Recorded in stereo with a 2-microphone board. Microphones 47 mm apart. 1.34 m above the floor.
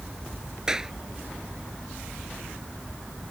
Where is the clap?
15° right (ahead or behind).